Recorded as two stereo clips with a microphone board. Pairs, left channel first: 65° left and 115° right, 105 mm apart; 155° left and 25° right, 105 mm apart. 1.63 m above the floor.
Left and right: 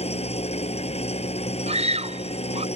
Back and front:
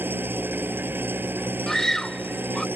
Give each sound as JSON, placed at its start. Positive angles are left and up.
{"t": 0.0, "sound": "an engine running", "azimuth_deg": 50}
{"t": 1.7, "sound": "a scream", "azimuth_deg": -115}